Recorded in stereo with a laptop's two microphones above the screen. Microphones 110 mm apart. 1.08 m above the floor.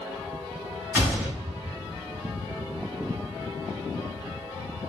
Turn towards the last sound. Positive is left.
turn(degrees=-20)  # may be behind; listen again after turning